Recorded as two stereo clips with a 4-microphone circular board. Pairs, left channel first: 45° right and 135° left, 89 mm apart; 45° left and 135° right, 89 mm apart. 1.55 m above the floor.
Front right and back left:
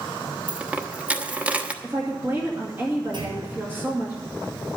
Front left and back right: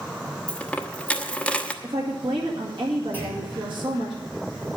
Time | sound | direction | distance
0.5 | a dropped coin | 95° left | 1.0 m
1.8 | a woman speaking | 160° right | 2 m
3.1 | a clunk | 155° left | 5 m